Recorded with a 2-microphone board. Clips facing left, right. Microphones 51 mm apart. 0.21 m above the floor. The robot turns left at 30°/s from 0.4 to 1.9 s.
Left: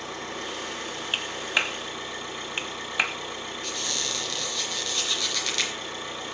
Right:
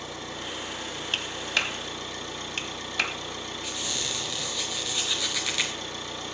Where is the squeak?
5° right (ahead or behind), 2 m.